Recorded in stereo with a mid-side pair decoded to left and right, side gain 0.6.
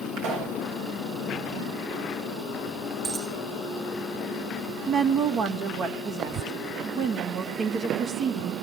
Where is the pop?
65° right, 7.5 m.